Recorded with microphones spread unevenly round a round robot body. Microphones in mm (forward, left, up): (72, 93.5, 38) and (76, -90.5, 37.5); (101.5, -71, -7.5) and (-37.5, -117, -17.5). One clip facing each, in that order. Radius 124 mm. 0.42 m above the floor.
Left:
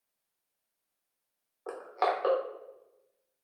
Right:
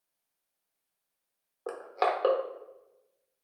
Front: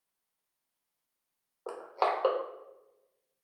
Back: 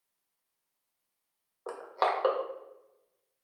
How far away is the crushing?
About 1.1 m.